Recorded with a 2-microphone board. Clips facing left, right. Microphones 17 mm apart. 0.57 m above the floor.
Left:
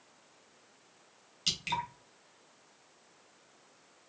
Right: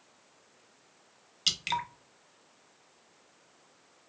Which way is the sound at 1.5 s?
20° right (ahead or behind).